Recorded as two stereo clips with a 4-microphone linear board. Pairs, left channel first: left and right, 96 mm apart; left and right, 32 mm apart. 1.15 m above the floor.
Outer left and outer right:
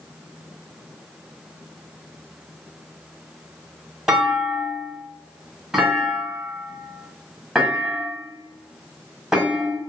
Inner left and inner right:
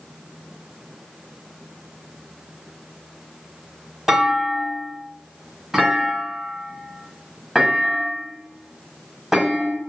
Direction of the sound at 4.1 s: 10° right (ahead or behind).